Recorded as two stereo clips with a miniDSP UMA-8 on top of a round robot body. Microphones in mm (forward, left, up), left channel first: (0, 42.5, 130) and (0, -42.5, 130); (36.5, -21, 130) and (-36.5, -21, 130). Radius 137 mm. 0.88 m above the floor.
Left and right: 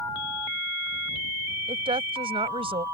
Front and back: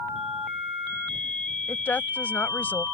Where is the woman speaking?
70° right.